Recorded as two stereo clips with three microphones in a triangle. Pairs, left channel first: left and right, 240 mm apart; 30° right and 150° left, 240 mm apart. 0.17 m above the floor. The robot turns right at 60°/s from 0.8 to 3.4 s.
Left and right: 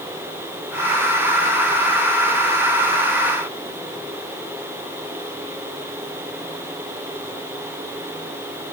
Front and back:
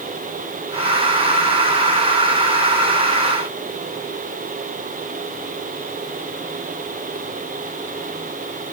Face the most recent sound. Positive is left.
No sound to turn to.